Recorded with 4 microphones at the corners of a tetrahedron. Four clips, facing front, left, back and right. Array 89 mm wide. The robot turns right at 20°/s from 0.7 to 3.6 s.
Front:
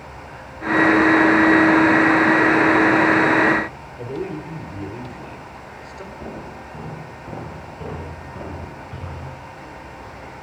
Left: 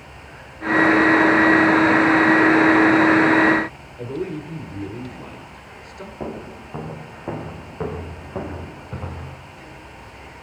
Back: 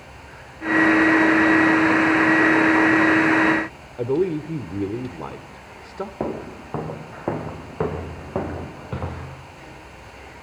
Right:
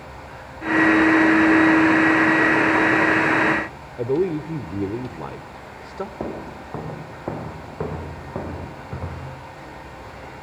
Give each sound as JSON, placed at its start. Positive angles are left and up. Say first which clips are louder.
{"t": 4.0, "sound": "a man speaking", "louder": "right 7 dB, back 7 dB", "azimuth_deg": -135, "distance_m": 1.5}
{"t": 6.2, "sound": "footsteps", "louder": "right 1 dB, back 7 dB", "azimuth_deg": -160, "distance_m": 6.0}